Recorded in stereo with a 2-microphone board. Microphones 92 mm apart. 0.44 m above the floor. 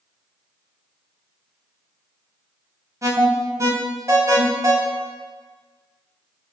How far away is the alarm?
About 3 m.